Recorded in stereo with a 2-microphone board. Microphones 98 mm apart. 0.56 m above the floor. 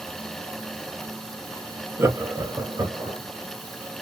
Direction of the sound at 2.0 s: 25° right (ahead or behind).